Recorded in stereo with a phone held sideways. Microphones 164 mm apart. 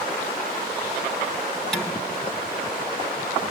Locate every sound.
1.7 s dishes clattering: 5° left (ahead or behind), 3 m